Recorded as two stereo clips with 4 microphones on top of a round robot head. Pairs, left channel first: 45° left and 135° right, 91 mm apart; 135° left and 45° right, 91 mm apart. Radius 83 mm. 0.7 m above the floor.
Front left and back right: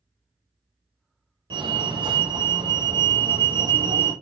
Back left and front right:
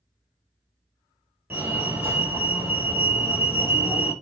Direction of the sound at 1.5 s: 110° right.